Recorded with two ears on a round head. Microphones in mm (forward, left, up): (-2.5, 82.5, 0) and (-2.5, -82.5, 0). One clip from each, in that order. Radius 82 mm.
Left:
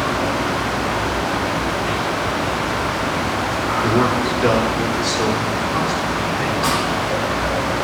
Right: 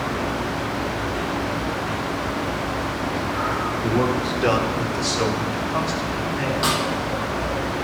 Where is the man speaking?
20° left (ahead or behind), 1.2 m; by 6.5 s 75° right (ahead or behind), 4 m.